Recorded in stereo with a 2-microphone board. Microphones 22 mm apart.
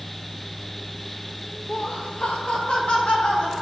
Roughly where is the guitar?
No guitar in this recording.